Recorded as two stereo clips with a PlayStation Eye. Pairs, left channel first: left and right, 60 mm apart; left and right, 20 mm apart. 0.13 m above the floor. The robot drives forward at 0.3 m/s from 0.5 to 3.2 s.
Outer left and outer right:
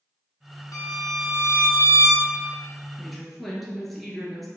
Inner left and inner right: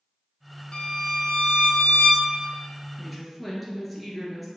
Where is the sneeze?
No sneeze in this recording.